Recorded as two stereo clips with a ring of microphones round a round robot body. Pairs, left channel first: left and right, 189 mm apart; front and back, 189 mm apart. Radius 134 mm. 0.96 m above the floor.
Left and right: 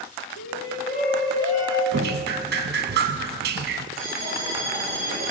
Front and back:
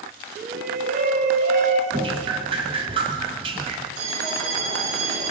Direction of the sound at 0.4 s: 150° left.